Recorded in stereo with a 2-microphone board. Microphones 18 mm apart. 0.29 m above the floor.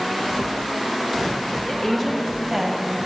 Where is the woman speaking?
25° left (ahead or behind), 1.4 m; by 3.0 s 5° right (ahead or behind), 2 m.